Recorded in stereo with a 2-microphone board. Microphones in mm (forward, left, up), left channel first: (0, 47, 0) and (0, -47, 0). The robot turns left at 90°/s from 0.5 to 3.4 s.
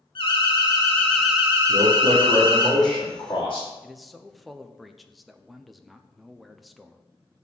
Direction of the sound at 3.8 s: Centre (ahead or behind).